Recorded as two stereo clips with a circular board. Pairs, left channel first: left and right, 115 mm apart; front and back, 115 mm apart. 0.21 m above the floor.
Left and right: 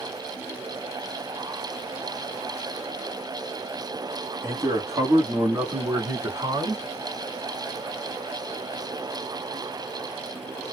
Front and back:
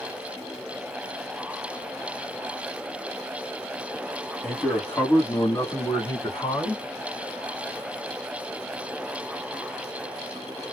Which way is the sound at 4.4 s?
80° right.